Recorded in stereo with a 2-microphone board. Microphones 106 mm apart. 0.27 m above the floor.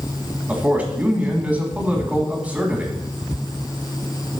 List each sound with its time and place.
0.5 s a man speaking: 15° right (ahead or behind), 2.5 m